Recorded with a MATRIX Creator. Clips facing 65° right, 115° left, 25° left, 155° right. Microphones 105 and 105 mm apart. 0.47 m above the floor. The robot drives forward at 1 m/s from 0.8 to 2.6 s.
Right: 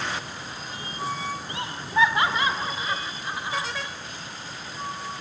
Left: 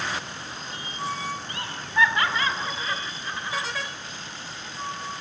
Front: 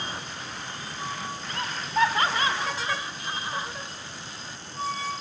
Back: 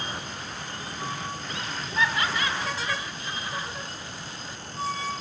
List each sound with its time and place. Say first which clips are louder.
1.5 s laughter: right 2 dB, front 7 dB; 5° right, 2 m; by 3.7 s 10° right, 1.3 m